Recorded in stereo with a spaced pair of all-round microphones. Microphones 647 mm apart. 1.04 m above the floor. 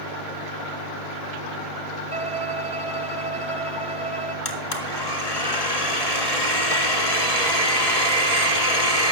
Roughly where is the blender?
Left.